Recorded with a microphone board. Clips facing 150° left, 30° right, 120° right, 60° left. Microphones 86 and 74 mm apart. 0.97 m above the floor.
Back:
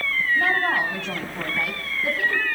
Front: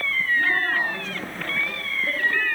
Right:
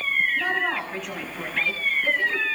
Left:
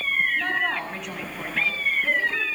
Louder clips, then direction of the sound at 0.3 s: Back 2 dB, even; 155° left.